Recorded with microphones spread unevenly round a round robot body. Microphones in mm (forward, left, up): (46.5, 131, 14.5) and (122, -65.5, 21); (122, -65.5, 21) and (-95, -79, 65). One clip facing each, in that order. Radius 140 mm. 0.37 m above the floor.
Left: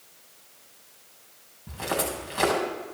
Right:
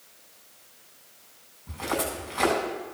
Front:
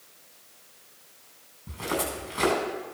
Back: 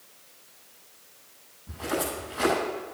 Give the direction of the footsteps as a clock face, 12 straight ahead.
10 o'clock.